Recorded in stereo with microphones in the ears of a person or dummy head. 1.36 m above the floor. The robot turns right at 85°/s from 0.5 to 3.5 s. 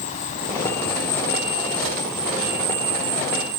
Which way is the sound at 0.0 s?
40° left.